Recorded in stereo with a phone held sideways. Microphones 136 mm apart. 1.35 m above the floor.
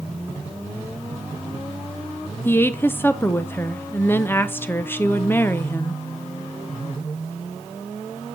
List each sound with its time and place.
2.5 s a woman speaking: 15° left (ahead or behind), 0.5 m